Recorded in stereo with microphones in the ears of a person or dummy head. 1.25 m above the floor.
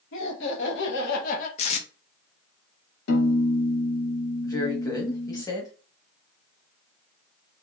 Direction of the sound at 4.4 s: 25° left (ahead or behind).